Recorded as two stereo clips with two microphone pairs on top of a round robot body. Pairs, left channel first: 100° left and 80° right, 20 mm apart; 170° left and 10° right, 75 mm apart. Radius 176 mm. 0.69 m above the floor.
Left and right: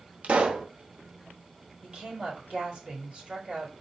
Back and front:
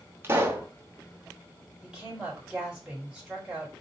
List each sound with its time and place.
0.2 s a pop: 70° right, 0.9 m
1.8 s a woman speaking: 90° right, 3.5 m